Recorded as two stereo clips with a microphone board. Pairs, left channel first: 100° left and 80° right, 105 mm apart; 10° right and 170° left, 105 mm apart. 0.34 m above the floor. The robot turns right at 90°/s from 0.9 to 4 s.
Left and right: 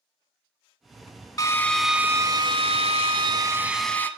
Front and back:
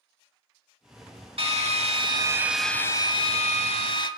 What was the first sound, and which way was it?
A drill, 150° left.